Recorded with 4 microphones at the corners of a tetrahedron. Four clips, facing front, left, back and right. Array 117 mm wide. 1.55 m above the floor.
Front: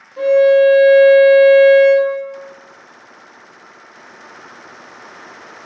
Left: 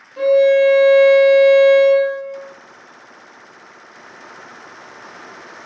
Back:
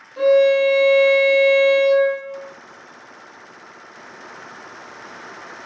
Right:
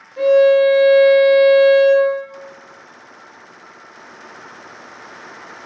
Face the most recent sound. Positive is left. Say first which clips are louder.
# right 1 dB, front 4 dB
turn(degrees=150)